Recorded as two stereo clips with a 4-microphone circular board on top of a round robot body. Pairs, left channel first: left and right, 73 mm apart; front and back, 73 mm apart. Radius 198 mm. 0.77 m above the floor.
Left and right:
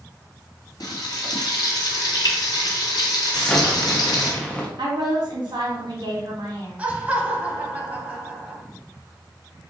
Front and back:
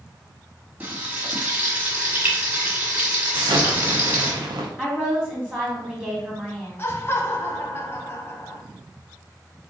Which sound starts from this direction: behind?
An explosion, at 3.3 s.